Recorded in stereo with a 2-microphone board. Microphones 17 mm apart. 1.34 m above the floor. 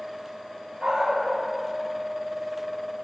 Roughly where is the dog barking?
Right.